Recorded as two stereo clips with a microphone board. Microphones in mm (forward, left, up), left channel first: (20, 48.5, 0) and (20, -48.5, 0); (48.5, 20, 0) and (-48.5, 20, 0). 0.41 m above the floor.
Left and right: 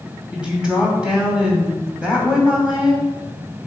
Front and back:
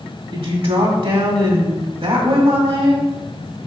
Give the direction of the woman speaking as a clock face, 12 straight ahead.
6 o'clock.